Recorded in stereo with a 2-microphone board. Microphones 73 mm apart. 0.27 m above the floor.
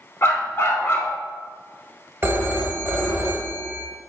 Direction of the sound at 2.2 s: 30° right (ahead or behind).